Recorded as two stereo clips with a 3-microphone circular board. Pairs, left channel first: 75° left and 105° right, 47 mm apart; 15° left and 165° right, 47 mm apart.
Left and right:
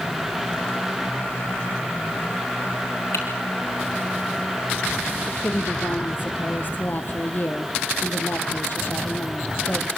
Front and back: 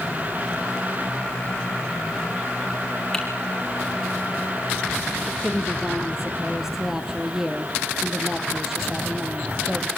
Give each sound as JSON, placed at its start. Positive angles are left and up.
{"t": 3.1, "sound": "typing on a keyboard", "azimuth_deg": 100, "distance_m": 6.0}
{"t": 5.3, "sound": "a woman speaking", "azimuth_deg": 115, "distance_m": 3.0}